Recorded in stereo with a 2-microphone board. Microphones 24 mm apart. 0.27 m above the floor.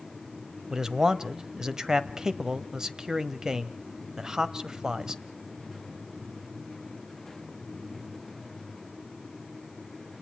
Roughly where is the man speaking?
Right.